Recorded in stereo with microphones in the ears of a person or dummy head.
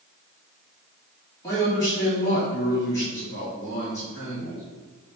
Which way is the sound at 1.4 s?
15° left (ahead or behind).